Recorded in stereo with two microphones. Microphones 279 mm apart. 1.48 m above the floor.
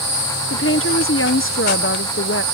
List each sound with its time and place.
0.5 s a woman speaking: 50° left (ahead or behind)